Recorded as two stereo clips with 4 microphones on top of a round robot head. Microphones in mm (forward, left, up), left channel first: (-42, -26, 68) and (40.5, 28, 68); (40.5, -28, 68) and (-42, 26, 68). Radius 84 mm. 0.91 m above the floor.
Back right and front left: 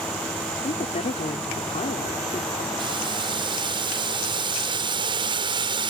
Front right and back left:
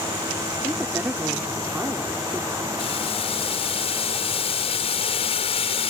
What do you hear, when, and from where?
0.6 s a woman speaking: 140° right
2.8 s boiling: 5° right